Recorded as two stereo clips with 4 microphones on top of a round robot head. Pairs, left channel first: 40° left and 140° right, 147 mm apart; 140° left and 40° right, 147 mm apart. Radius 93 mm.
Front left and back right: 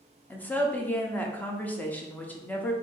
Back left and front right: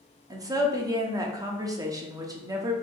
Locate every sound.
0.3 s a woman speaking: 25° right, 0.8 m